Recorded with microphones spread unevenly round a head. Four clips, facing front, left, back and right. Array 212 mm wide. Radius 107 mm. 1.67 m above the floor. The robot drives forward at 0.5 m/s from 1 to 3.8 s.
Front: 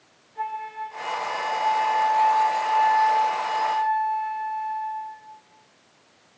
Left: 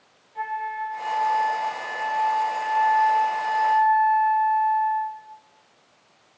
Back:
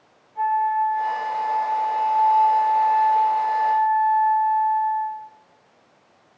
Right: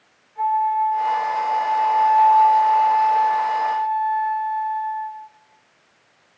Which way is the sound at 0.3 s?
75° left.